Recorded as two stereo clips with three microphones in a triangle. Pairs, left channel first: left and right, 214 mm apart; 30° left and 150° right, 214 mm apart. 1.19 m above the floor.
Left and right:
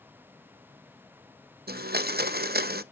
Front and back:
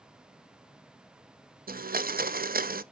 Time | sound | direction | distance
1.7 | a blender | 115° right | 0.6 m